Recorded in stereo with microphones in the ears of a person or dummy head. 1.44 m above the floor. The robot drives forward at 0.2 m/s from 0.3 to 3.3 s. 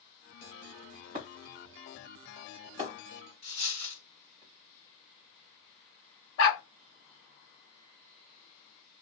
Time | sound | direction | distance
1.1 | breaking glass | 30° right (ahead or behind) | 1.5 m
3.4 | a dropped coin | 15° left (ahead or behind) | 2.0 m
6.4 | a dog barking | 50° left (ahead or behind) | 1.3 m